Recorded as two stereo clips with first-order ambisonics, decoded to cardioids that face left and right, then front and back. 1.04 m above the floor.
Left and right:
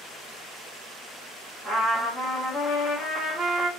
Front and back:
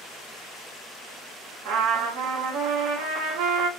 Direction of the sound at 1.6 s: 175° right.